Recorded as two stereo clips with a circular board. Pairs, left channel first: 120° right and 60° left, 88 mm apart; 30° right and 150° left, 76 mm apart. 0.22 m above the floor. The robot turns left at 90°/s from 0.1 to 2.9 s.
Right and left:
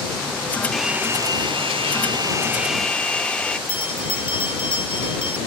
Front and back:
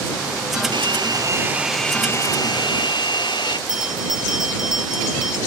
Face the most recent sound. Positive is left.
turn(degrees=-125)